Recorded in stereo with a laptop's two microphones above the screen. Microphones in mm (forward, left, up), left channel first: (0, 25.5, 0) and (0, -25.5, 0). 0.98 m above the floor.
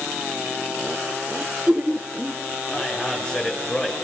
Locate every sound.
1.4 s laughter: 15° right (ahead or behind), 0.7 m
2.7 s a man speaking: 20° left (ahead or behind), 5.5 m